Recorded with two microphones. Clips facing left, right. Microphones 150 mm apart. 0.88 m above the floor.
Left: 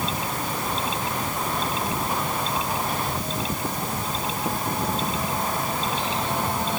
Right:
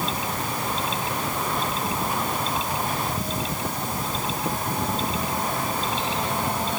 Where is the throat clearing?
I don't hear throat clearing.